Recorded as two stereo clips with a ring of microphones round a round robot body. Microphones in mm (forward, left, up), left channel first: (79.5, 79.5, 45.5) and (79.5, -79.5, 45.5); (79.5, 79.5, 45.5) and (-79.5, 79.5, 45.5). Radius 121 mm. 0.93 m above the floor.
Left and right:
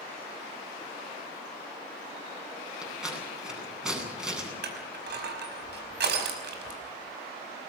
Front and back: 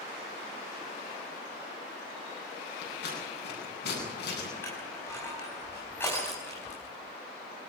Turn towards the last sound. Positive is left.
turn(degrees=-80)